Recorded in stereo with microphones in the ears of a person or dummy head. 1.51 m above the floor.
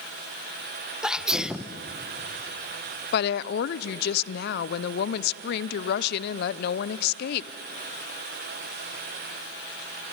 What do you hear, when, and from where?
1.0 s a sneeze: 5° left (ahead or behind), 1.2 m
3.1 s a woman speaking: 65° left (ahead or behind), 0.6 m